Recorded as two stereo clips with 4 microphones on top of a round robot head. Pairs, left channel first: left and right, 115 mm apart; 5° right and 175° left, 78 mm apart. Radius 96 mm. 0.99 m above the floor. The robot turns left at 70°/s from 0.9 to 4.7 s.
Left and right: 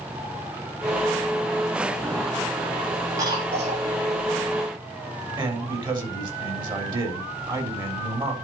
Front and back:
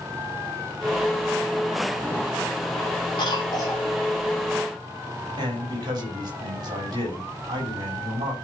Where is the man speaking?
140° right, 4 m.